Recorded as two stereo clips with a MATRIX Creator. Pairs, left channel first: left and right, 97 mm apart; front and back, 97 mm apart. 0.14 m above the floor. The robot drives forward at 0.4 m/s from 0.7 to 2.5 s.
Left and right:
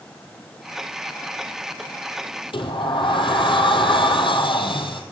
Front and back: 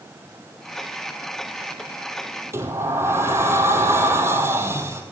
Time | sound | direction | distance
2.5 | a sliding door | 115° left | 1.4 m